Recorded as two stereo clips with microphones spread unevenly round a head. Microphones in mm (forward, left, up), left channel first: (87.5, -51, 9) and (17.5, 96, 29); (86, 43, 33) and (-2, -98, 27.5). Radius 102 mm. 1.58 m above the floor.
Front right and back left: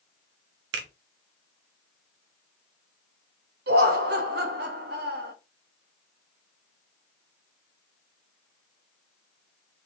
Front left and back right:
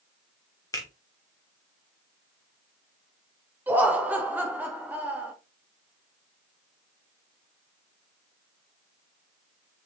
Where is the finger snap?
130° left, 0.8 m.